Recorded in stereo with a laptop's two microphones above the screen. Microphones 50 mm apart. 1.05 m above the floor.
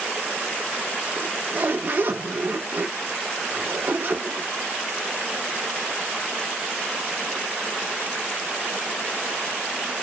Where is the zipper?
50° right (ahead or behind), 1.0 m.